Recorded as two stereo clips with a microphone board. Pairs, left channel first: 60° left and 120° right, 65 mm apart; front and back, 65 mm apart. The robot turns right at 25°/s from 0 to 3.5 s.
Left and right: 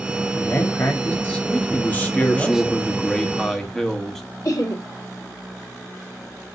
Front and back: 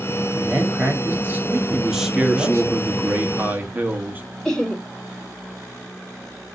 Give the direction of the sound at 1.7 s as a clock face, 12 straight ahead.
9 o'clock.